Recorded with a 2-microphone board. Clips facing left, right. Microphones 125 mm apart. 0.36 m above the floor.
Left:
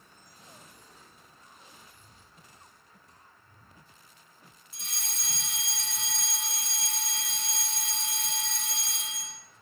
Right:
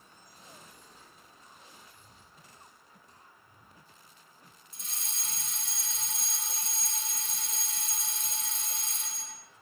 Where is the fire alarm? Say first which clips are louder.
Left 3 dB; 75° left (ahead or behind), 6.5 m.